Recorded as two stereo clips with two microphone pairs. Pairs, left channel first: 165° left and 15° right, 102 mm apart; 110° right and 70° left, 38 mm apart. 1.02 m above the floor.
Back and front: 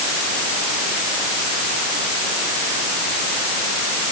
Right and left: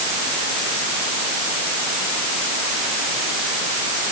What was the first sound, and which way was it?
Only background noise.